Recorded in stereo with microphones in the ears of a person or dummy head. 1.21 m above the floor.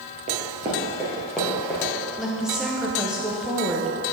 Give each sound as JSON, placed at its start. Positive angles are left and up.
{"t": 0.3, "sound": "running footsteps", "side_deg": -30, "distance_m": 1.3}
{"t": 2.2, "sound": "a woman speaking", "side_deg": -5, "distance_m": 0.9}